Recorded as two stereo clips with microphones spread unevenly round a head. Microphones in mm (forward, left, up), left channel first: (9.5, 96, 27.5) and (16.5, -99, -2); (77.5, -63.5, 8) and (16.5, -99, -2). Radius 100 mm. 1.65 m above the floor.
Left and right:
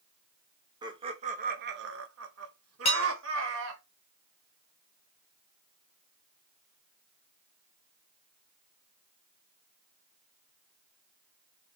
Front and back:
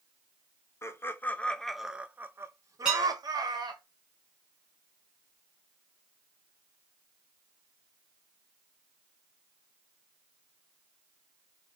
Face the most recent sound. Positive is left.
turn(degrees=120)